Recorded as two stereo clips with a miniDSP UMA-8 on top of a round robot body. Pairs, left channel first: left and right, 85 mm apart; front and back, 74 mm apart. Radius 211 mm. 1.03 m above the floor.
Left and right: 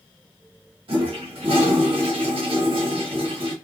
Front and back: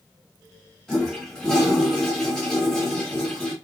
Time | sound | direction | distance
0.9 | a toilet flushing | 85° right | 1.4 m